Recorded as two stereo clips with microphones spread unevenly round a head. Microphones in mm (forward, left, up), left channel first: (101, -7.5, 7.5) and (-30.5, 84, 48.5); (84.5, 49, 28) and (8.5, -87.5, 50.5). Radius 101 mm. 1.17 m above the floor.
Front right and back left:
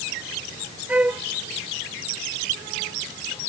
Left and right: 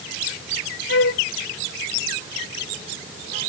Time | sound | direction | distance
0.9 | a flute | 65° left | ?